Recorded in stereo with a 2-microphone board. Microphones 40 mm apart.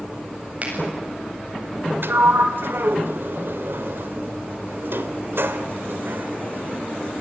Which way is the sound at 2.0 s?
65° right (ahead or behind).